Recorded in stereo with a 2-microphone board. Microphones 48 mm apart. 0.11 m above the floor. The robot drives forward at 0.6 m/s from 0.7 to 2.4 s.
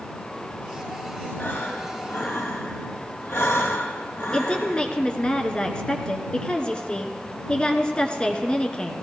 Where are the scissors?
No scissors in this recording.